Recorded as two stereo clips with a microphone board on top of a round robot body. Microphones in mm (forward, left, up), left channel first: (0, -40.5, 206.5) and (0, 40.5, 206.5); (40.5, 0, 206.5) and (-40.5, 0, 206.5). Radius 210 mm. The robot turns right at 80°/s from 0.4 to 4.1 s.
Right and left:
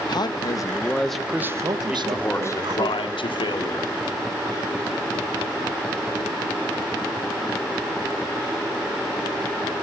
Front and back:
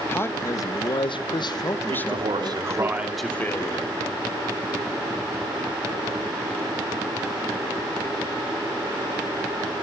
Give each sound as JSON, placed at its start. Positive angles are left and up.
{"t": 0.1, "sound": "a man speaking", "azimuth_deg": -60, "distance_m": 1.8}
{"t": 1.9, "sound": "a man speaking", "azimuth_deg": 170, "distance_m": 2.5}